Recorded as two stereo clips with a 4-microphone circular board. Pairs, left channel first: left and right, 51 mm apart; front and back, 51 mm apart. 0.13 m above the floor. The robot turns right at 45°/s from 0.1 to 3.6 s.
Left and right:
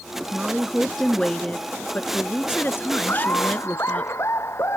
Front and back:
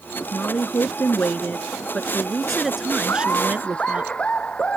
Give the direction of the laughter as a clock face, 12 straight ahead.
11 o'clock.